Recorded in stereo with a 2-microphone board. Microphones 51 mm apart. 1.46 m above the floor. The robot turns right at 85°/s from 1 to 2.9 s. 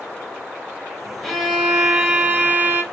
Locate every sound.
1.2 s a violin: 170° left, 0.9 m; by 2.8 s 55° right, 0.9 m